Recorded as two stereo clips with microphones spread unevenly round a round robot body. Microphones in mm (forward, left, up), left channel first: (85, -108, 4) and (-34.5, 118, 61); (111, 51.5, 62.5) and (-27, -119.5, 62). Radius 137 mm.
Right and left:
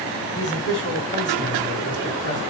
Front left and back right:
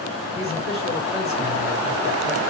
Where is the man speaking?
5° left, 2.5 m.